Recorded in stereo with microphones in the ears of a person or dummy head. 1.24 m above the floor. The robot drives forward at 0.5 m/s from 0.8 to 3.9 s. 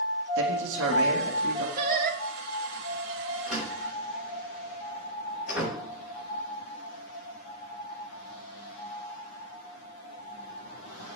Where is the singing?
45° right (ahead or behind), 1.3 m; by 2.2 s 55° right (ahead or behind), 1.2 m.